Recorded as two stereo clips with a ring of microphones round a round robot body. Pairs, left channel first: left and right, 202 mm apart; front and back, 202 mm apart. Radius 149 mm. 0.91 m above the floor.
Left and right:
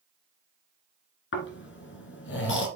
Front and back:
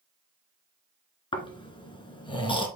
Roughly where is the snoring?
Ahead left.